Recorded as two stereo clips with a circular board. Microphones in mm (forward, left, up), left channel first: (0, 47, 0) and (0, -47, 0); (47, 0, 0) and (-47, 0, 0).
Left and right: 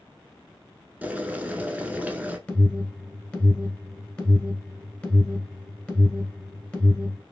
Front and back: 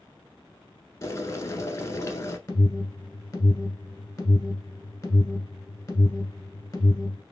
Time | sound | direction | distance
1.0 | boiling | 30° right | 0.6 m
2.5 | an alarm | 30° left | 1.3 m